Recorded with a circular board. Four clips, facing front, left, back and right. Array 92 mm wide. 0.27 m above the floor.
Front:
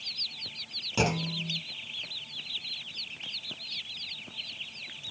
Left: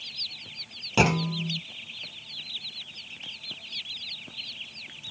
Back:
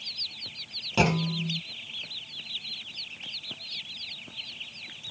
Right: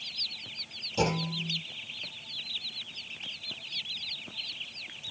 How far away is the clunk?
About 0.9 m.